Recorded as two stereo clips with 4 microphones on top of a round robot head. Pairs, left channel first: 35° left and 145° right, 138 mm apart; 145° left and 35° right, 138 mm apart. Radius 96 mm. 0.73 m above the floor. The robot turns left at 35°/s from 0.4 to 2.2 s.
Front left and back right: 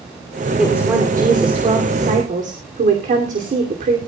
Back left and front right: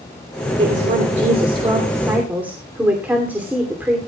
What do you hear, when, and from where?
0.6 s a woman speaking: 60° right, 2.5 m; by 4.0 s 115° right, 2.5 m